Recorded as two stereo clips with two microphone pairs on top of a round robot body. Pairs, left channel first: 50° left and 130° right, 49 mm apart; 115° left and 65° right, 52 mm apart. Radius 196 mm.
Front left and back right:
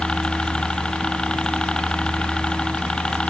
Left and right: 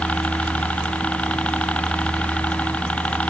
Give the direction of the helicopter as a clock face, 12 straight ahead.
8 o'clock.